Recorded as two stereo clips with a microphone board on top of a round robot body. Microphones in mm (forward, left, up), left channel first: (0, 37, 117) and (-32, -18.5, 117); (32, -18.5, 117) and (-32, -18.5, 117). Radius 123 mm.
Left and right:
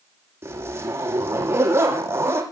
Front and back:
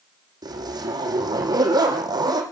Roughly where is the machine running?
I don't hear a machine running.